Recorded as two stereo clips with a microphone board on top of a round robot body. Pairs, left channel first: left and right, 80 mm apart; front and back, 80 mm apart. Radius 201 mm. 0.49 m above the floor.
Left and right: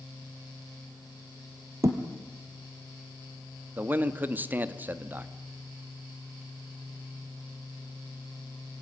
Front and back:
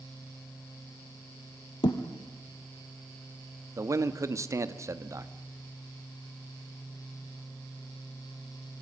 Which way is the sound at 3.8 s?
150° right.